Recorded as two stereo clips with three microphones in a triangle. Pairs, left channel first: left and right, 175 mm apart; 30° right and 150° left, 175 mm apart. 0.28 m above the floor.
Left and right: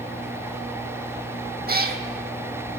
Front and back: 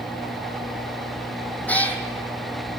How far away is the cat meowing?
About 0.9 m.